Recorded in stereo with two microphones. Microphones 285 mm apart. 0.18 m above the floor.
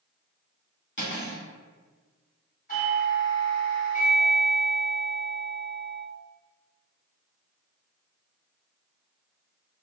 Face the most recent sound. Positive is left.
turn(degrees=30)  # may be behind; listen again after turning